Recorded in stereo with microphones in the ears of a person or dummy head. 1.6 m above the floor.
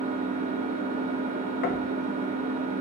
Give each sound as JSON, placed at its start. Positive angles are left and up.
{"t": 0.0, "sound": "an engine running", "side_deg": -25, "distance_m": 0.8}
{"t": 1.6, "sound": "knocking", "side_deg": 55, "distance_m": 1.0}